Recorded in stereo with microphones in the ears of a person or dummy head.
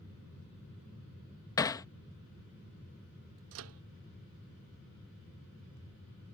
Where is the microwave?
65° right (ahead or behind).